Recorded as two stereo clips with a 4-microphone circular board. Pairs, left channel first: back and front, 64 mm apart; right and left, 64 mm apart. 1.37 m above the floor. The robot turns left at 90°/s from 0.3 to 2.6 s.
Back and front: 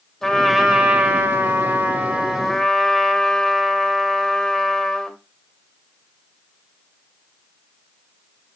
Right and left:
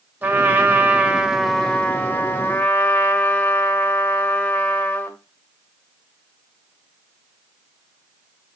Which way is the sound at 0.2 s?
110° left.